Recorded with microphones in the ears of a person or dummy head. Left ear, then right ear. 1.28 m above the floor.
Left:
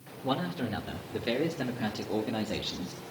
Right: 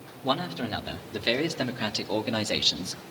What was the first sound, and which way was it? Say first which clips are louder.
A man speaking: right 4 dB; 40° right (ahead or behind).